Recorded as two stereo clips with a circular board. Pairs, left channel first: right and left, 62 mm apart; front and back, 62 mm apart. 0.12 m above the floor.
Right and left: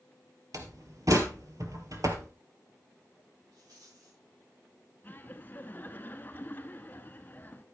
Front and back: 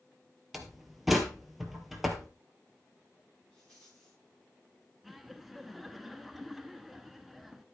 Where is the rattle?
85° left, 8.5 m.